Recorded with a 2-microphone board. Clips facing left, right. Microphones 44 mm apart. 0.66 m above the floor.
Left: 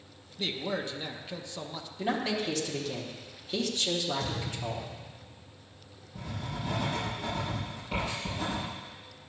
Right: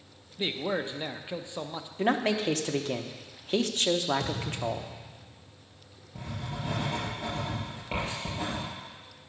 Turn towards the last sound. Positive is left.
turn(degrees=-35)  # may be behind; listen again after turning